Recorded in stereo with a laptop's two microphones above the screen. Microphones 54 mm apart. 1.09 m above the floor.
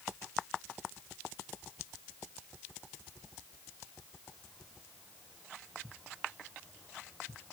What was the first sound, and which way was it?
Only background noise.